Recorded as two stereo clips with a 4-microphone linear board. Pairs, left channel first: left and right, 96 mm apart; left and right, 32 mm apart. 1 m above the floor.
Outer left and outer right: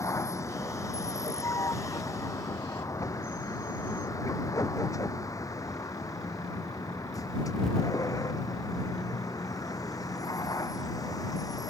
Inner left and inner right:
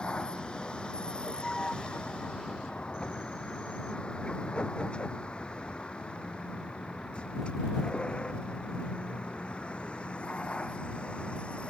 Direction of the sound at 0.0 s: 30° left (ahead or behind).